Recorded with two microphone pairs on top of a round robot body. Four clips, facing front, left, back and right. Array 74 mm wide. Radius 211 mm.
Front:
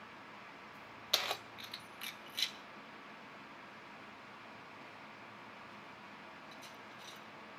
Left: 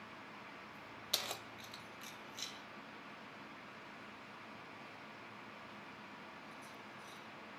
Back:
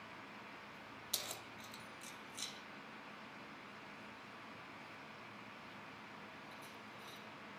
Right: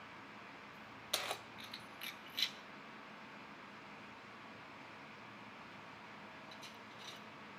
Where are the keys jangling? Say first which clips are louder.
Right 2 dB, front 12 dB; 10° right, 1.1 m; by 7.2 s 60° right, 4 m.